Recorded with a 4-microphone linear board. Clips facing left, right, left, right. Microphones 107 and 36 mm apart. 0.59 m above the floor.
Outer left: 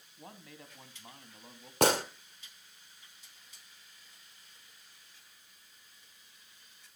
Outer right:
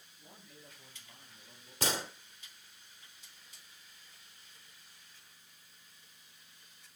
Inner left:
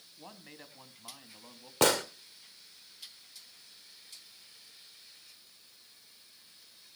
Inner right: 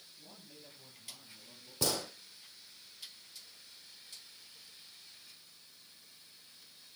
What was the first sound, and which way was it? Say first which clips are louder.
A man speaking: outer left 7 dB, inner left 7 dB; 75° left (ahead or behind).